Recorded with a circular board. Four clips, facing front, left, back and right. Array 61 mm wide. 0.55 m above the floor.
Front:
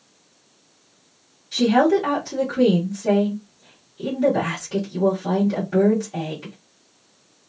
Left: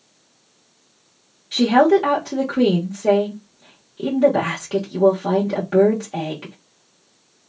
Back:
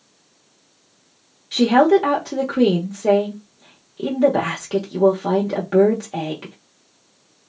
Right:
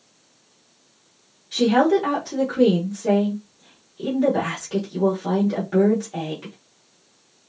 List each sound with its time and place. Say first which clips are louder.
1.5 s a woman speaking: left 3 dB, back 3 dB; 150° left, 1.2 m